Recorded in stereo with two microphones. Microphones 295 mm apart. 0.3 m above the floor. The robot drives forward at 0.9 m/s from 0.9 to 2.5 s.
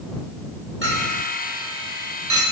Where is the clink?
40° right (ahead or behind), 2 m; by 2.4 s 65° right (ahead or behind), 1.5 m.